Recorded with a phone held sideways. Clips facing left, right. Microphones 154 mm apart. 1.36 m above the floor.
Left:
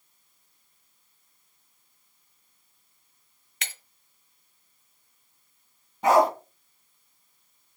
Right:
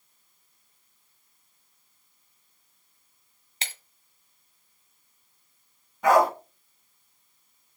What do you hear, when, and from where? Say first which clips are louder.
3.6 s breaking glass: right 1 dB; 30° right (ahead or behind), 1.5 m
6.0 s a dog barking: even; 25° left (ahead or behind), 4 m